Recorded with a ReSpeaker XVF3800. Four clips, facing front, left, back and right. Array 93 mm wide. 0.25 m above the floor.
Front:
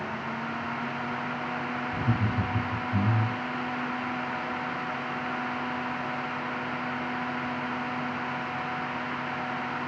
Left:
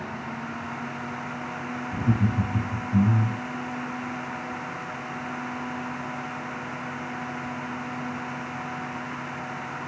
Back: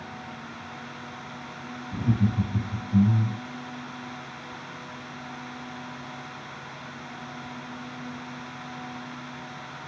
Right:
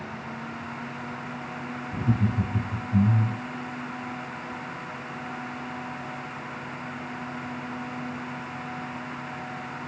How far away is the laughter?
About 1.4 m.